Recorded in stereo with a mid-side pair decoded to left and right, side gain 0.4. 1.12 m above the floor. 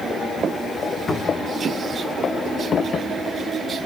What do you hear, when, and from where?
1.1 s a cupboard door: 30° left, 1.6 m